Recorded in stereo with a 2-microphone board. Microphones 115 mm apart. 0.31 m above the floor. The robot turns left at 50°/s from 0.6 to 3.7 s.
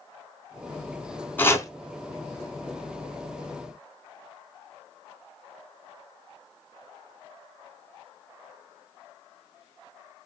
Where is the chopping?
15° left (ahead or behind), 0.5 m; by 1.7 s 30° left (ahead or behind), 0.5 m.